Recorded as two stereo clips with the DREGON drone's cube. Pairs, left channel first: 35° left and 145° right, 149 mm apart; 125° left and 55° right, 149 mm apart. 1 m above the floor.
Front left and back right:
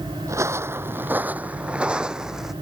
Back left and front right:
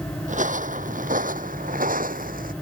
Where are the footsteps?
75° right; by 2.5 s 60° right.